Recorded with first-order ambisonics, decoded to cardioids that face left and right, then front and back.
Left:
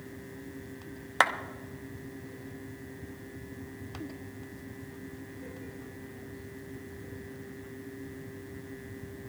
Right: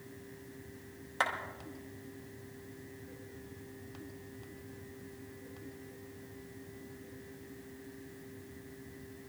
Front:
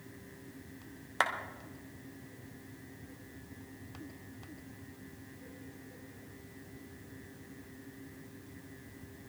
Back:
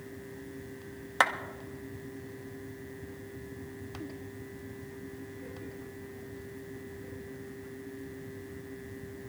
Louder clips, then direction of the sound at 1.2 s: Left 8 dB, back 5 dB; 105° left.